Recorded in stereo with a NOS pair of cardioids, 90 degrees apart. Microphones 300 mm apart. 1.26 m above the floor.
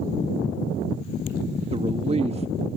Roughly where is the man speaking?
Ahead.